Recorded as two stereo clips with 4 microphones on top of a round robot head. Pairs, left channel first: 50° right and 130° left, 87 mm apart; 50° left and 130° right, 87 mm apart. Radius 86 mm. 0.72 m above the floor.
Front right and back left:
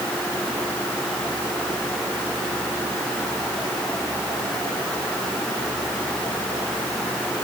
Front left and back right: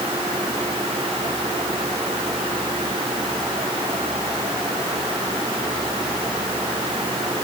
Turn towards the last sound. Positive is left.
No sound to turn to.